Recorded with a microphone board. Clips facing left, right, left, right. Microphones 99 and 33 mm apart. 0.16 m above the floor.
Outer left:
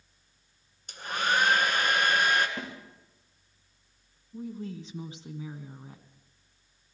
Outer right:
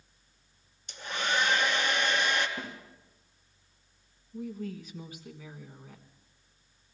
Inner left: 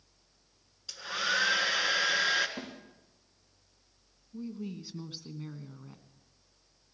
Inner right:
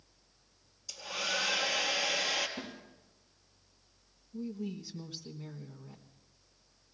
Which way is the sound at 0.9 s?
50° left (ahead or behind).